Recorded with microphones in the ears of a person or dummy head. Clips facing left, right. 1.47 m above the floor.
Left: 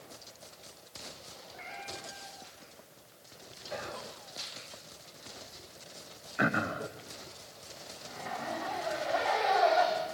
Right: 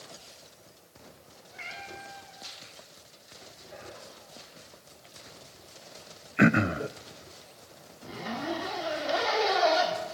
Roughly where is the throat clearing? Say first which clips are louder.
Right 9 dB; right.